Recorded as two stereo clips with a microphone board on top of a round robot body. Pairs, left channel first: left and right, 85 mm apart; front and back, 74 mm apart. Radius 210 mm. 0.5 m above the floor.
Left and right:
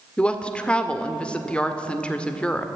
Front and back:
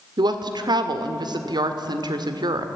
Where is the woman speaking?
165° left, 1.9 m.